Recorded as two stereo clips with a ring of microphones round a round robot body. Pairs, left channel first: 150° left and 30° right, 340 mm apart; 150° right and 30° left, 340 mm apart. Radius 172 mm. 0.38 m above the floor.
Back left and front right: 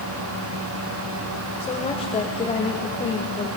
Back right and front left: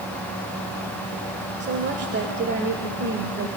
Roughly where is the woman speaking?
Left.